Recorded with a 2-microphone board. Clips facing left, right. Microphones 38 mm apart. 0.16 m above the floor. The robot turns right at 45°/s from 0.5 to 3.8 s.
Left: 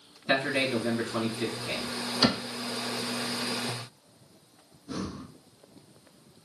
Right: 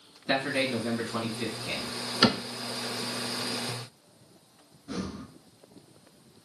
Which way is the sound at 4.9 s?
30° right (ahead or behind).